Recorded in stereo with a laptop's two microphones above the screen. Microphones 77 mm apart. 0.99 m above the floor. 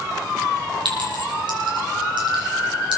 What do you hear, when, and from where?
0.8 s a clink: 80° right, 6 m